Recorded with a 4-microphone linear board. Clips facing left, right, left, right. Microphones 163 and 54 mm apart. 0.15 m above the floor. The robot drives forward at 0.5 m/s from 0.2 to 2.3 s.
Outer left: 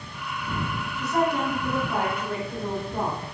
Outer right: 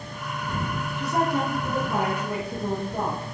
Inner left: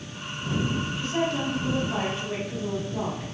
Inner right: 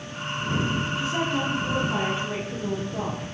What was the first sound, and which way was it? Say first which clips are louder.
A woman speaking: outer left 1 dB, inner left 1 dB; 15° right (ahead or behind).